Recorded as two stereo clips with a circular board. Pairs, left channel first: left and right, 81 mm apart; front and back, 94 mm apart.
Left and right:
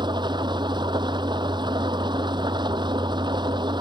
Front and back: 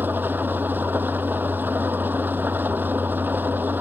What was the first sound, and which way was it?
An engine running, 110° right.